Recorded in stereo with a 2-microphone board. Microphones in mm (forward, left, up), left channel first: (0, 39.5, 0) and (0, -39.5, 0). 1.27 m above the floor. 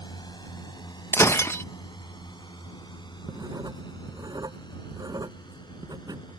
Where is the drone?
65° left (ahead or behind); by 6.4 s 70° left (ahead or behind).